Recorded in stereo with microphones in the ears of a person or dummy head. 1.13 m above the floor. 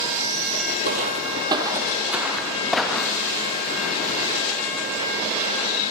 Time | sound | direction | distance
0.8 | footsteps | 45° right (ahead or behind) | 1.7 m